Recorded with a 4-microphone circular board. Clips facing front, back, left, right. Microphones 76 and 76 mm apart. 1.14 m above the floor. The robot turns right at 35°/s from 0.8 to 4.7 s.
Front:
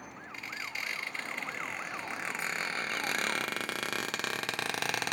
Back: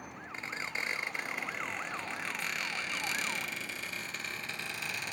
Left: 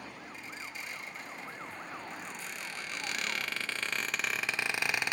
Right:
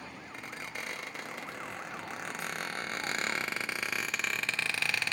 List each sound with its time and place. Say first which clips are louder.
0.3 s a squeak: back 2 dB, right 6 dB; 120° right, 0.8 m; by 5.1 s 15° left, 0.8 m